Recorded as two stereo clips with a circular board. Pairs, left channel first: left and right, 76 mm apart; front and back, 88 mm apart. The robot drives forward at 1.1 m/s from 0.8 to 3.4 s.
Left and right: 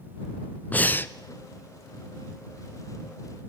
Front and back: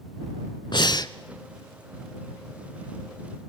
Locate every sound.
0.7 s breathing: 20° left, 0.9 m; by 1.1 s 35° left, 0.7 m